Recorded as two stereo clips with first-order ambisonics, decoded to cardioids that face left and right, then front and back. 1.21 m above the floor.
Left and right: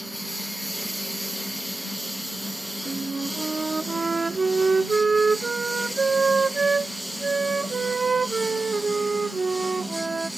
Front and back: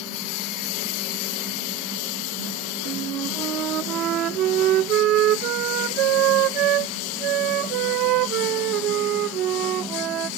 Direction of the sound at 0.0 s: Straight ahead.